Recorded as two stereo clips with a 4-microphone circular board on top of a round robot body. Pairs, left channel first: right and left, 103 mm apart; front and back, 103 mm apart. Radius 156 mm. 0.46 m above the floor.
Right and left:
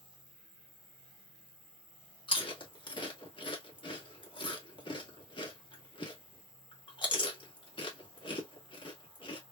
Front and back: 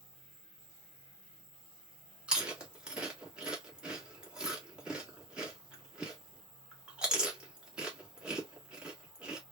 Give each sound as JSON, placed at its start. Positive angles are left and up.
{"t": 0.0, "sound": "an insect", "azimuth_deg": -120, "distance_m": 2.5}
{"t": 2.3, "sound": "chewing", "azimuth_deg": -105, "distance_m": 1.6}